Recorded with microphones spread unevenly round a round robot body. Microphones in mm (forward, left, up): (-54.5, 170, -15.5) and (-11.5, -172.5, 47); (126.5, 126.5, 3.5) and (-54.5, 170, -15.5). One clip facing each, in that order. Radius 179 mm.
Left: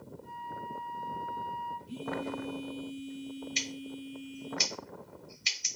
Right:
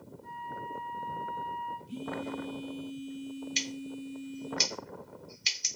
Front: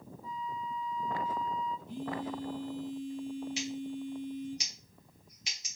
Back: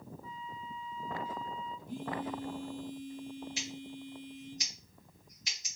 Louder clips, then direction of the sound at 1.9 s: Left 1 dB, back 2 dB; 170° left.